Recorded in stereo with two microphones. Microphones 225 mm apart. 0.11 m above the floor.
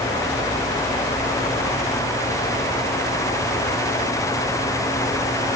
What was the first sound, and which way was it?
Only background noise.